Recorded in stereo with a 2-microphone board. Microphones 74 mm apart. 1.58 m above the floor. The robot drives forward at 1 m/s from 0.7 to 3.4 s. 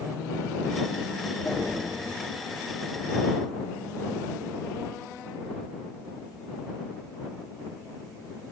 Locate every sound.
1.4 s knocking: 5° right (ahead or behind), 2.5 m; by 1.8 s 10° right (ahead or behind), 2.5 m